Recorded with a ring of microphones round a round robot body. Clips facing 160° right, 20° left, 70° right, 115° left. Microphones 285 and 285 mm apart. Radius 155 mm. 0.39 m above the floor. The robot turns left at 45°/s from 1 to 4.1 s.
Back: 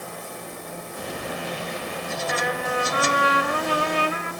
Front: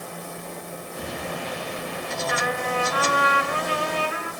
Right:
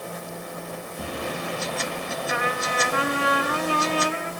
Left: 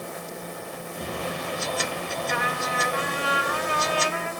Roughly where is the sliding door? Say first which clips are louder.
Back 1 dB, even; ahead right.